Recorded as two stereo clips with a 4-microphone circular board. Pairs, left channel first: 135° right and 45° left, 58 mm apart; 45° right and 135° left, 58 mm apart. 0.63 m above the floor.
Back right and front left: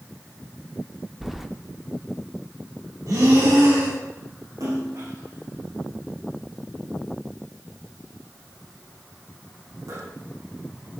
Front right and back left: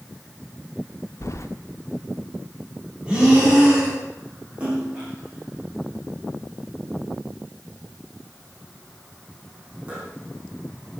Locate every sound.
1.2 s keys jangling: 40° right, 1.1 m
3.1 s breathing: 60° left, 6 m
4.6 s a splash: 65° left, 8 m